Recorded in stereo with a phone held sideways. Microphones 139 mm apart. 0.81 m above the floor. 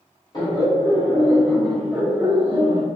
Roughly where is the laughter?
Left.